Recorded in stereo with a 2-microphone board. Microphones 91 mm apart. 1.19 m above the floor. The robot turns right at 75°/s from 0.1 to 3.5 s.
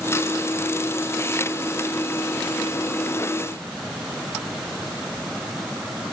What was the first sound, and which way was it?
Only background noise.